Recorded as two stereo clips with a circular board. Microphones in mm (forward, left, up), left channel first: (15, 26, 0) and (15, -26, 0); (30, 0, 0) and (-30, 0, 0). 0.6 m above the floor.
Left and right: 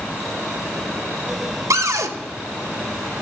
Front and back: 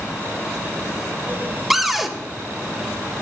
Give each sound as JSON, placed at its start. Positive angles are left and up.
{"t": 1.7, "sound": "a cupboard door", "azimuth_deg": -95, "distance_m": 0.7}